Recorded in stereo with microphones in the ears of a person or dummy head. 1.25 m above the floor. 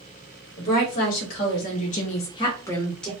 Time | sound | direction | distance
0.6 | a woman speaking | 40° left (ahead or behind) | 1.0 m